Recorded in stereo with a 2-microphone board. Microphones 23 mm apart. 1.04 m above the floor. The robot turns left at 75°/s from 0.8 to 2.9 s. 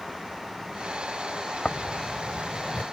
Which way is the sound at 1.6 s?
40° left (ahead or behind).